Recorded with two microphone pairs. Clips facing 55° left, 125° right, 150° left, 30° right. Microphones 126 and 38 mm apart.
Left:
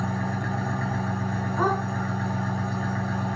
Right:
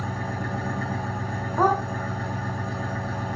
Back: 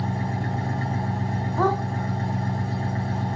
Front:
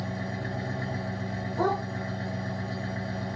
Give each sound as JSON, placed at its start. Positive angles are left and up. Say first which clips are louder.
{"t": 0.0, "sound": "an engine running", "louder": "left 2 dB, back 6 dB", "azimuth_deg": 145, "distance_m": 2.5}
{"t": 1.6, "sound": "a dog barking", "louder": "right 4 dB, back 4 dB", "azimuth_deg": -175, "distance_m": 1.6}